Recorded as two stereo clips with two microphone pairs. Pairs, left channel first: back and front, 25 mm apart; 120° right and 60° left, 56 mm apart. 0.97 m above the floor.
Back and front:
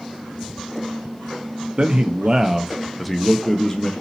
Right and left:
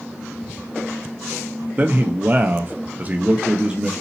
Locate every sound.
1.8 s a man speaking: 20° left, 0.8 m; by 3.9 s 125° left, 1.0 m